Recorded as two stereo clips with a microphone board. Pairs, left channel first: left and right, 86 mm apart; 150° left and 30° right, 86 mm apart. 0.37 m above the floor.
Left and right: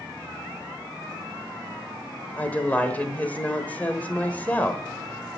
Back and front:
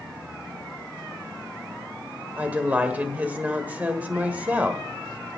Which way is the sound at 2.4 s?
30° left.